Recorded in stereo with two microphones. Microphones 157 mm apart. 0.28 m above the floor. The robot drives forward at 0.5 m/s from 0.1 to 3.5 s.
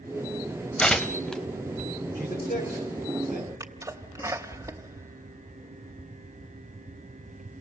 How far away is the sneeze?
About 0.9 m.